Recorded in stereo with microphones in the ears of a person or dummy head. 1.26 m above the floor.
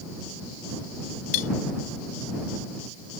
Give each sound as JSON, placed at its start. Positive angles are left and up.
{"t": 1.3, "sound": "cutlery clinking", "side_deg": 40}